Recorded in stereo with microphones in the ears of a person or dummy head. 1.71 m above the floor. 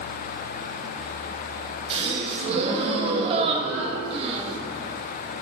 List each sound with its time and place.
1.9 s a gasp: 30° right (ahead or behind), 1.0 m